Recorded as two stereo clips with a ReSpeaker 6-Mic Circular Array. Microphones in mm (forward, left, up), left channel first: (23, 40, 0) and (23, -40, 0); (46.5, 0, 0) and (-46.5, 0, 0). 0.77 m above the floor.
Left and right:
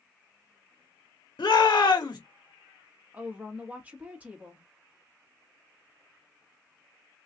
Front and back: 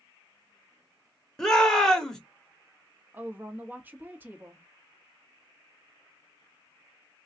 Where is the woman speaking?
135° right, 1.1 m.